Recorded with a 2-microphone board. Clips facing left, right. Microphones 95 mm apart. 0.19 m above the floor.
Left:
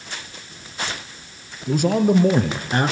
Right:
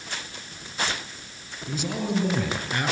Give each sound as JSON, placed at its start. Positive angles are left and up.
{"t": 1.7, "sound": "a man speaking", "side_deg": 50, "distance_m": 4.0}